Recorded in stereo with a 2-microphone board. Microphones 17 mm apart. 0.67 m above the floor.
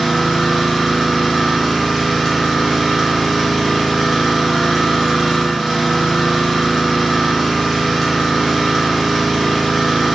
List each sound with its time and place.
0.0 s an engine running: 20° left (ahead or behind), 3.5 m